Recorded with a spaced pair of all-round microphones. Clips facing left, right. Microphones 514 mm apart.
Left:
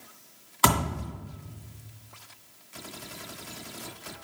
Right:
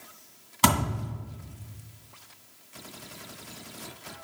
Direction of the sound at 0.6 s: 50° right (ahead or behind).